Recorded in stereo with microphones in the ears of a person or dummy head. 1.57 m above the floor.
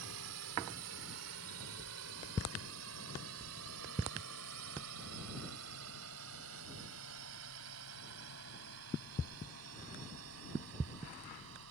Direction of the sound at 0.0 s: 75° right (ahead or behind).